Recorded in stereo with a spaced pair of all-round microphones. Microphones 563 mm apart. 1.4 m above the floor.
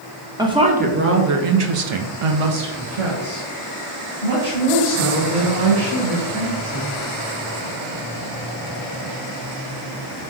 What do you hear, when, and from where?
0.4 s a woman speaking: 5° right (ahead or behind), 0.9 m; by 6.9 s 35° right (ahead or behind), 2.5 m